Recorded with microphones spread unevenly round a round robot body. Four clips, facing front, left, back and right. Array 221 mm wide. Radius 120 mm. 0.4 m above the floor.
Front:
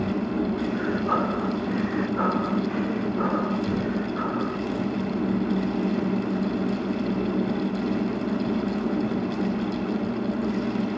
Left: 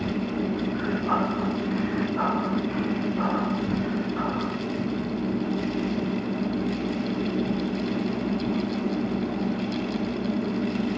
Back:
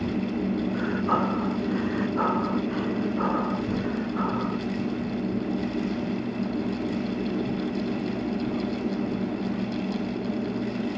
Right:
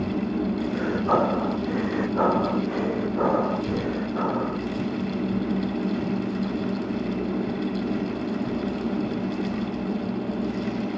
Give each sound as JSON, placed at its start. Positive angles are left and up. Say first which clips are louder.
{"t": 0.7, "sound": "breathing", "louder": "right 5 dB, front 1 dB", "azimuth_deg": -100}